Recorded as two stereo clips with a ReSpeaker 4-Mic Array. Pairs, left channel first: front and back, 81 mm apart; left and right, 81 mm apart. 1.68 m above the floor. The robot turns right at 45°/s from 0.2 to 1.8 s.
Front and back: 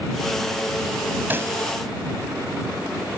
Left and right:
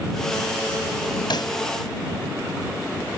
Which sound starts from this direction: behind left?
A pop, at 1.3 s.